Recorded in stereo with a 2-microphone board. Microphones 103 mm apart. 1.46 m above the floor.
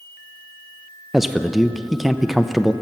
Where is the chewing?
I don't hear chewing.